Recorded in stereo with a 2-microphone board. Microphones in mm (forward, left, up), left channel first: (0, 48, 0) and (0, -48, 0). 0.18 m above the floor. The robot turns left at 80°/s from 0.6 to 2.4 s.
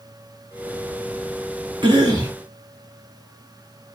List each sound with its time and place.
1.8 s a cough: 90° right, 1.6 m; by 2.4 s 130° right, 1.6 m